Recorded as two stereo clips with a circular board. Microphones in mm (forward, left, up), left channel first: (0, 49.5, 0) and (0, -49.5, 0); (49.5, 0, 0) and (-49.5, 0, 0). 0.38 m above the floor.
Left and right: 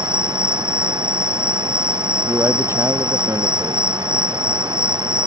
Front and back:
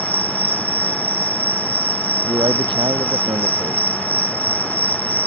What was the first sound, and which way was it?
An insect, 10° right.